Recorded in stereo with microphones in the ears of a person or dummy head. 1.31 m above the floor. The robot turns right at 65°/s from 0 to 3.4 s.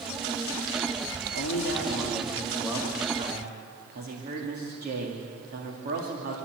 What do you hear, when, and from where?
1.3 s a man speaking: 90° left, 2.5 m; by 6.3 s 135° right, 2.5 m